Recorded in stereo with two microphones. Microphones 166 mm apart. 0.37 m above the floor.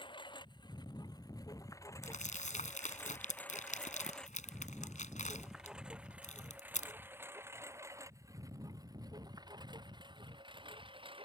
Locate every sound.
0.0 s a lawn mower: 30° left (ahead or behind); by 11.3 s 35° right (ahead or behind)
2.0 s crumpling: 50° left (ahead or behind)